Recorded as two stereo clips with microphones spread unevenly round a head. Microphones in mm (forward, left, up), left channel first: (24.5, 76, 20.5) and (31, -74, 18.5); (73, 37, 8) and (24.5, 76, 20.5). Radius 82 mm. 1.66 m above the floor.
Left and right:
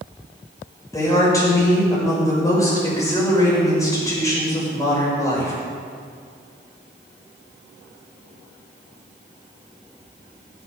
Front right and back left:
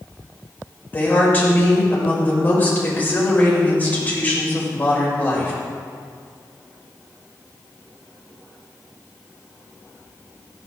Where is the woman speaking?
25° left, 6 m.